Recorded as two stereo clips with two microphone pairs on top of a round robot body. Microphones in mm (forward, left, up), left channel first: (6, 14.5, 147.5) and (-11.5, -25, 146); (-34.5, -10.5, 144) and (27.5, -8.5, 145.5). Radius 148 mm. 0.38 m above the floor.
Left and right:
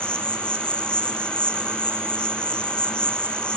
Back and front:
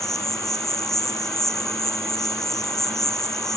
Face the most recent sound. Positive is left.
turn(degrees=105)